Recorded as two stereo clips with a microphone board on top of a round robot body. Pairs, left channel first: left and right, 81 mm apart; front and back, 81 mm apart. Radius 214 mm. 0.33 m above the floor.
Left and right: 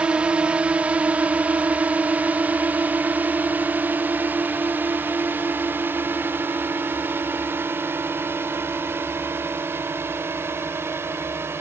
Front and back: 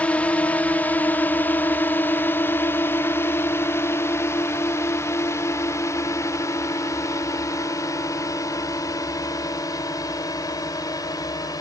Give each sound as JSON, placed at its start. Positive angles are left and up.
{"t": 0.0, "sound": "a drone", "azimuth_deg": -40}